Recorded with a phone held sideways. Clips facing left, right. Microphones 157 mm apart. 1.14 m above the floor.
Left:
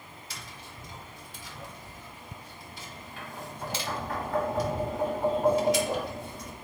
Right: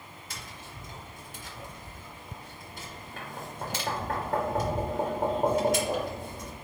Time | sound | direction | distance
0.3 | tapping | 50° right (ahead or behind) | 1.8 m